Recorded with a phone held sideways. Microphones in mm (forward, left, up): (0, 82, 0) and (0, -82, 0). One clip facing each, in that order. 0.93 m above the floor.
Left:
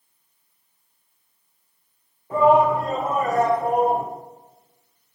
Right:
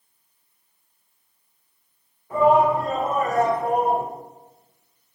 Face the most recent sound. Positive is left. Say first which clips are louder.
# left 1 dB
turn(degrees=30)  # may be behind; listen again after turning